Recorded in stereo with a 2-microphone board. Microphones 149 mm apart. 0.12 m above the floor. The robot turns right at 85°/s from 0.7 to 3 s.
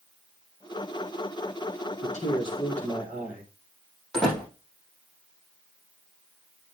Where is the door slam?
5° left (ahead or behind), 4.5 m.